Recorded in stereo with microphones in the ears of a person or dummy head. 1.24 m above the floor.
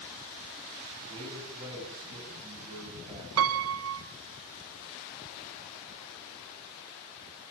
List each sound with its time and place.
1.1 s a man speaking: 30° right (ahead or behind), 10 m
3.4 s a piano: 80° right, 1.6 m